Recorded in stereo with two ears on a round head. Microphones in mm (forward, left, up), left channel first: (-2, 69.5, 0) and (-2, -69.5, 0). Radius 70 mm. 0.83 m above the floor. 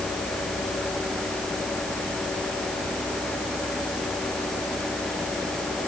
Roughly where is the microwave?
No microwave in this recording.